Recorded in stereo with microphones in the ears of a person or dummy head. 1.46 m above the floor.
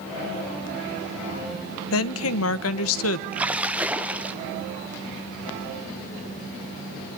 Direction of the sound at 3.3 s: 10° right (ahead or behind).